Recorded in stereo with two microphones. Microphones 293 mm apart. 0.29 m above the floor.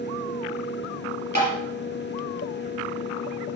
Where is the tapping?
70° right (ahead or behind), 3 m.